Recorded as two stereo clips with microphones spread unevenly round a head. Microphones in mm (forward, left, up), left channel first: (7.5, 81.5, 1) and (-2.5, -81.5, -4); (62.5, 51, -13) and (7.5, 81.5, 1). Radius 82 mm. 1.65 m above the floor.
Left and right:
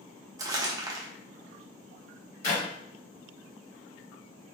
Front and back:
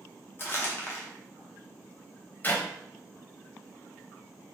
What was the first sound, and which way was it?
Crumpling, 60° right.